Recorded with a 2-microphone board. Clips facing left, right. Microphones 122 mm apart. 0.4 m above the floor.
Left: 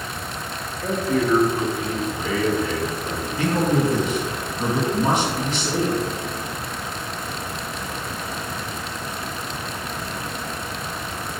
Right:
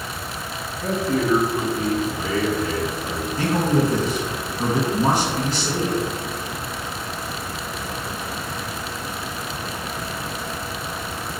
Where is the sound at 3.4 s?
35° right (ahead or behind), 2.5 m.